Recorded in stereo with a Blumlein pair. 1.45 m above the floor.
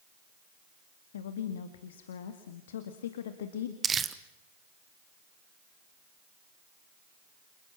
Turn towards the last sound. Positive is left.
turn(degrees=-20)